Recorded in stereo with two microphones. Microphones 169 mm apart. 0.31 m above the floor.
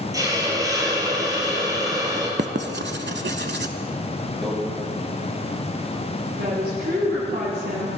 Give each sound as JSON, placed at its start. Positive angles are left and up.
{"t": 0.1, "sound": "a hiss", "side_deg": -20, "distance_m": 2.0}
{"t": 2.4, "sound": "writing", "side_deg": -75, "distance_m": 0.6}
{"t": 4.4, "sound": "a microwave", "side_deg": 0, "distance_m": 2.0}
{"t": 6.4, "sound": "a woman speaking", "side_deg": -60, "distance_m": 3.0}